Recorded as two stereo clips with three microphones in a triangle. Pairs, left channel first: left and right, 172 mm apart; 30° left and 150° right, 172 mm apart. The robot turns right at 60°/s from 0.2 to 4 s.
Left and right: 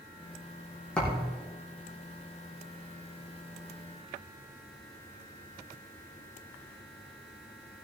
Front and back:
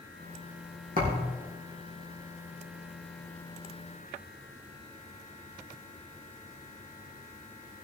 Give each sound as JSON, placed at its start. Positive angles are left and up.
{"t": 1.0, "sound": "a thud", "azimuth_deg": 175, "distance_m": 4.0}